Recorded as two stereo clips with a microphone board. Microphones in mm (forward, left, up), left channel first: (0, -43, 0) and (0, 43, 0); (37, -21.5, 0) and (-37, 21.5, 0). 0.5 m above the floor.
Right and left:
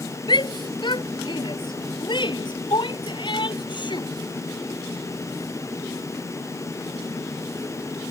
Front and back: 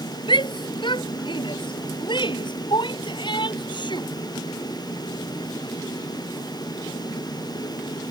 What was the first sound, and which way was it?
A shout, 55° right.